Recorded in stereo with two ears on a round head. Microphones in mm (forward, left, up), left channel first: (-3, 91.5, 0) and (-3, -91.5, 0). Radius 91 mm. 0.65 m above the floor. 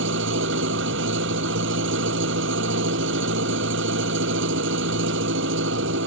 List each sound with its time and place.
0.0 s an engine running: 65° right (ahead or behind)